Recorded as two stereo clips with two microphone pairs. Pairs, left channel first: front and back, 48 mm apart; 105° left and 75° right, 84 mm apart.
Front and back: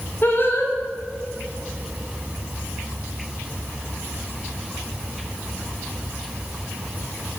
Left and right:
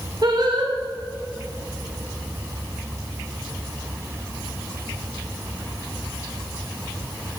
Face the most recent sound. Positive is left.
turn(degrees=-40)